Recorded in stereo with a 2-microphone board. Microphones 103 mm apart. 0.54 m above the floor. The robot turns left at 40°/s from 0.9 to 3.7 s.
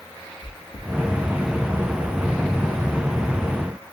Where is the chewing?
85° left, 1.7 m.